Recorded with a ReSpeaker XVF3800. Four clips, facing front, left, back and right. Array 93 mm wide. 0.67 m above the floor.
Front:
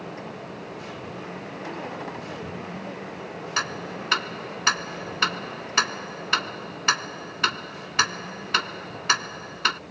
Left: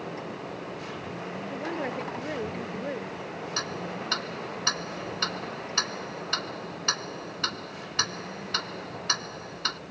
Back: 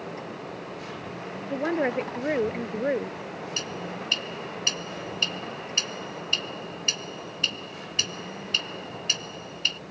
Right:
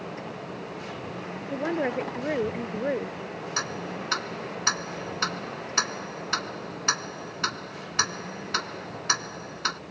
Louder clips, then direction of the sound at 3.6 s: Right 2 dB, front 8 dB; 10° right.